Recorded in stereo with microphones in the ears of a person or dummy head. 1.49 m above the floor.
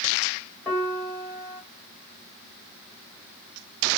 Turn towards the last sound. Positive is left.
turn(degrees=10)  # may be behind; listen again after turning